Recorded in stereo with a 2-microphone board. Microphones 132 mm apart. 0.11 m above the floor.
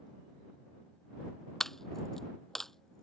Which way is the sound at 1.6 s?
5° left (ahead or behind).